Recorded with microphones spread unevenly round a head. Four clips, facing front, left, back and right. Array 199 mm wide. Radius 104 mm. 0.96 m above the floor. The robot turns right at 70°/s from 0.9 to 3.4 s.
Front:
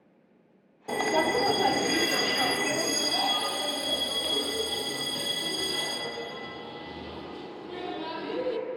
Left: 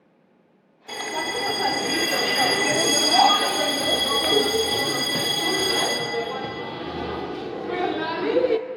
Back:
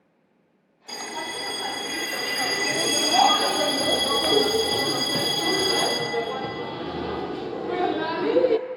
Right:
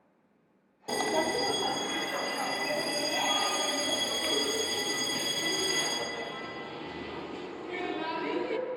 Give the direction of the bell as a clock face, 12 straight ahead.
1 o'clock.